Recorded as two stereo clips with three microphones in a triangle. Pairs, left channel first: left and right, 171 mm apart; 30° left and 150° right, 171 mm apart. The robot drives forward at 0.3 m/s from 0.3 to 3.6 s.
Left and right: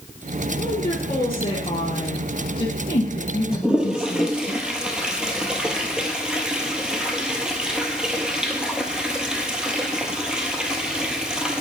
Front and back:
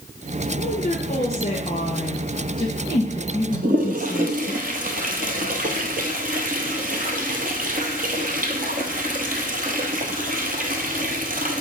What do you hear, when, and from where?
0.6 s a woman speaking: 45° left, 1.9 m; by 4.5 s 90° left, 1.6 m
3.5 s a toilet flushing: 175° right, 1.0 m